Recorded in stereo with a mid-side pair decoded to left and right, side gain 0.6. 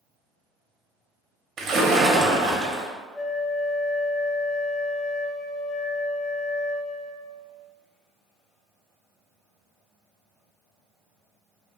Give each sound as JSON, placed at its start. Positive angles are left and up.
{"t": 1.6, "sound": "a splash", "azimuth_deg": -55, "distance_m": 0.7}
{"t": 3.1, "sound": "a flute", "azimuth_deg": 15, "distance_m": 0.5}